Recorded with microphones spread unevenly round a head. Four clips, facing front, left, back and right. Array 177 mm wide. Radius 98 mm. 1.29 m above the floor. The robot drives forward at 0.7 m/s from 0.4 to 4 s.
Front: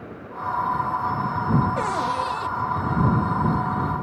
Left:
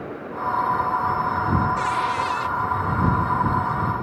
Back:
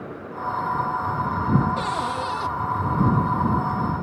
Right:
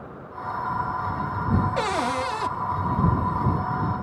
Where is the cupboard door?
55° right, 0.6 m; by 2.5 s 135° right, 0.7 m.